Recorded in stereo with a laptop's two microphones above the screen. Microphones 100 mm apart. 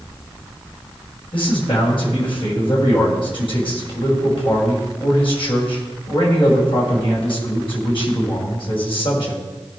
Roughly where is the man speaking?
Left.